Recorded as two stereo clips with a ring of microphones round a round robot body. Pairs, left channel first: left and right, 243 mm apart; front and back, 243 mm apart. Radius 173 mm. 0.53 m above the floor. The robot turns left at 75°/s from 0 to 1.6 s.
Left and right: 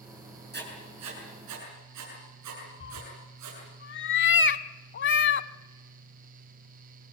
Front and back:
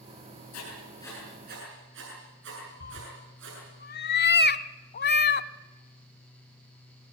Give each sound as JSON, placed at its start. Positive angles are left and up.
{"t": 0.5, "sound": "writing", "azimuth_deg": -40, "distance_m": 7.5}
{"t": 2.8, "sound": "a cat meowing", "azimuth_deg": 50, "distance_m": 0.8}